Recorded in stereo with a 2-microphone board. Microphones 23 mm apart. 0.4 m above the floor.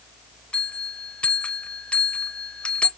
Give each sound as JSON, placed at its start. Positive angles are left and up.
{"t": 0.5, "sound": "a bell", "side_deg": 55, "distance_m": 0.7}